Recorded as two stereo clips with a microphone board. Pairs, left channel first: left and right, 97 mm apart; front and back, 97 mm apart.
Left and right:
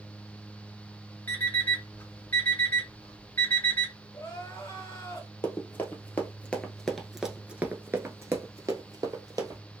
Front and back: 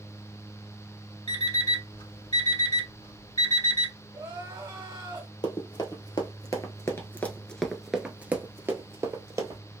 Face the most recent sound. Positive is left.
turn(degrees=-130)